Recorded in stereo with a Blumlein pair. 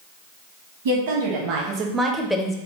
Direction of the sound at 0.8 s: 60° right.